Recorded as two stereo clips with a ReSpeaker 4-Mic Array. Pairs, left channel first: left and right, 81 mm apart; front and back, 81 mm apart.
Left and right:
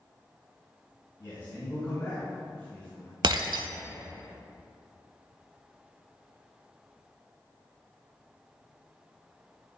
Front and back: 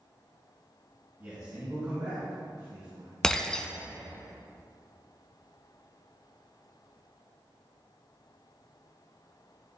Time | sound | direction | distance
1.2 | a man speaking | 135° left | 3 m
3.2 | breaking glass | 80° right | 0.6 m